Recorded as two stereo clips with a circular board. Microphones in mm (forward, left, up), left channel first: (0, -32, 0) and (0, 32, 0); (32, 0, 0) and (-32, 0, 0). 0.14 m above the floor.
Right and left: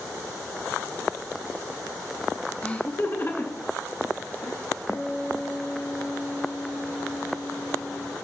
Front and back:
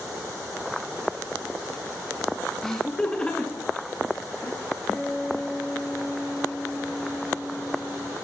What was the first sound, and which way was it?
Laughter, 70° right.